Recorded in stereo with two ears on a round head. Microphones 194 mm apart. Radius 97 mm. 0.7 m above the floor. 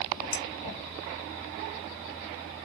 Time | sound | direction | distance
0.3 | dishes clattering | 40° left (ahead or behind) | 3 m